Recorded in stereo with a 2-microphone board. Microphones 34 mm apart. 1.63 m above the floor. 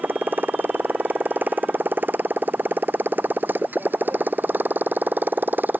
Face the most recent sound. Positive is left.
turn(degrees=-70)  # may be behind; listen again after turning